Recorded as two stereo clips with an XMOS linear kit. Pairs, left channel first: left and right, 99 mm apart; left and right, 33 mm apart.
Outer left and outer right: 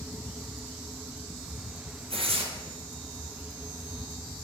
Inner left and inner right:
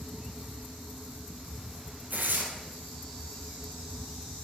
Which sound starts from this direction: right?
Tearing paper, at 2.1 s.